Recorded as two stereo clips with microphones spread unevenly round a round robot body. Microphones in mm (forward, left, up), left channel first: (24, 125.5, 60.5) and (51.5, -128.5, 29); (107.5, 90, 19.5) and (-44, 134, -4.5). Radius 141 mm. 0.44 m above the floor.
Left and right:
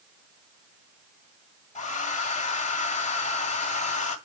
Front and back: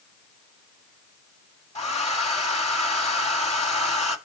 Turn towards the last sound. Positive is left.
turn(degrees=30)